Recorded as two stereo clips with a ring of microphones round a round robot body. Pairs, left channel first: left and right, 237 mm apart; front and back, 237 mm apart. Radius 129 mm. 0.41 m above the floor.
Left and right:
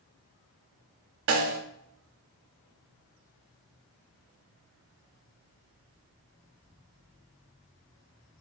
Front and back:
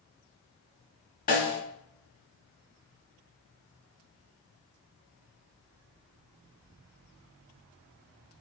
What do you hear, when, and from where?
1.3 s a snare drum: 60° right, 0.8 m